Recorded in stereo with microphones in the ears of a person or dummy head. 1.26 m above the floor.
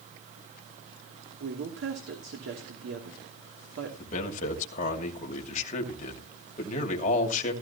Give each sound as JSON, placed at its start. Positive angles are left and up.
{"t": 1.4, "sound": "a woman speaking", "side_deg": -75, "distance_m": 3.0}
{"t": 4.0, "sound": "a man speaking", "side_deg": 40, "distance_m": 2.5}